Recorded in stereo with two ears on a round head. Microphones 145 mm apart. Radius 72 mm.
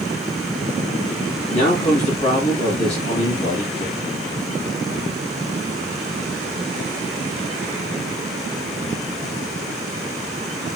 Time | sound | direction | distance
1.5 | a man speaking | 45° left (ahead or behind) | 3 m